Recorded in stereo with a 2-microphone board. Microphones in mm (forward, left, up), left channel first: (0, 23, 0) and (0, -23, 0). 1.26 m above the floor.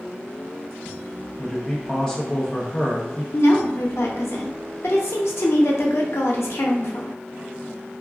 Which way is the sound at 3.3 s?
70° left (ahead or behind).